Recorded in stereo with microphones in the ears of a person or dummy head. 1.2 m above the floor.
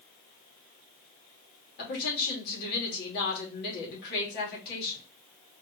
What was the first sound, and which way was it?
A woman speaking, 60° left (ahead or behind).